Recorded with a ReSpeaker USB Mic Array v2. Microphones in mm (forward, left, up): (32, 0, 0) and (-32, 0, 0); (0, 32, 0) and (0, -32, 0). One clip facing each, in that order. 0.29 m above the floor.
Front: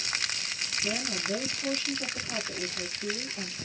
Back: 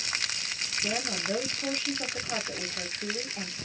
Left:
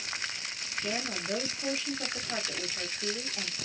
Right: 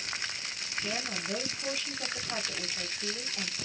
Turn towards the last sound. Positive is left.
turn(degrees=160)